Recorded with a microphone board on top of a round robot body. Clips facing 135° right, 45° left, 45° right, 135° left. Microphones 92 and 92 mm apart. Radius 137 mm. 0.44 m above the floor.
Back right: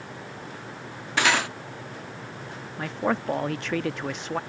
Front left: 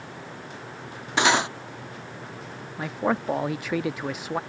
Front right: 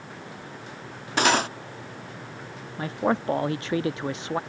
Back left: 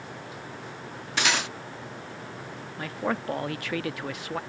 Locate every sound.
1.2 s cutlery clinking: 15° right
2.8 s a man speaking: 30° right